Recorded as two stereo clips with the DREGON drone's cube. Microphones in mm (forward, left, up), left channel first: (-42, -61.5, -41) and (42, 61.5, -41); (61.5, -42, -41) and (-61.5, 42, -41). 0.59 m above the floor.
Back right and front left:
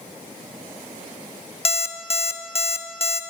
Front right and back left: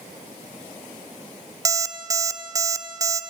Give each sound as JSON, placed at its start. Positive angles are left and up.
{"t": 1.6, "sound": "an alarm clock", "azimuth_deg": -155, "distance_m": 0.5}